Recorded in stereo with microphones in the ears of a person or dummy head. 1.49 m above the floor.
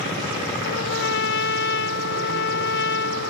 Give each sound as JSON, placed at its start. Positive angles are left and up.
{"t": 0.7, "sound": "a trumpet", "side_deg": 60}